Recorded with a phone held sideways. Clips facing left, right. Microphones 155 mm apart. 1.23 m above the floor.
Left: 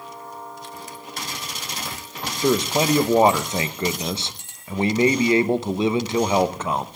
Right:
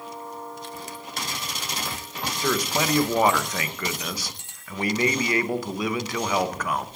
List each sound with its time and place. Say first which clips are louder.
2.4 s a man speaking: left 6 dB; 25° left (ahead or behind), 0.7 m